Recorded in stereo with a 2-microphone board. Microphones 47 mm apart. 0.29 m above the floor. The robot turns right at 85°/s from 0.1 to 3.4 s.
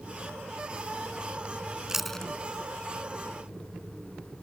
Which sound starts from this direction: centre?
Chewing, at 1.9 s.